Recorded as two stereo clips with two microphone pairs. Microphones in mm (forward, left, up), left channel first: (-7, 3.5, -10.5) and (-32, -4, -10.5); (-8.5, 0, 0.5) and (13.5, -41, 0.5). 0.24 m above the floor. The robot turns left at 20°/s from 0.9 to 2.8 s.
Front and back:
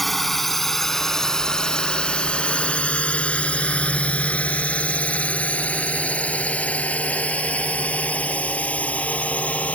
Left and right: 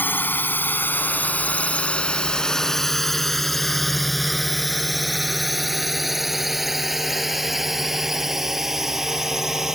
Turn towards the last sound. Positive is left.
turn(degrees=20)